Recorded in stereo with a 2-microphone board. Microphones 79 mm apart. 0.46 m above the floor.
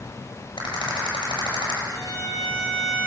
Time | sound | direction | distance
0.6 | a rattle | 85° left | 9 m
1.9 | a violin | 50° left (ahead or behind) | 10 m